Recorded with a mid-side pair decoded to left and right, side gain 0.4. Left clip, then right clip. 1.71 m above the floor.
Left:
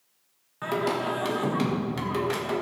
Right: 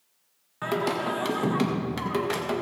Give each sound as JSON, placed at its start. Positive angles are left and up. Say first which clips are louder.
{"t": 0.6, "sound": "singing", "louder": "even", "azimuth_deg": -20, "distance_m": 1.8}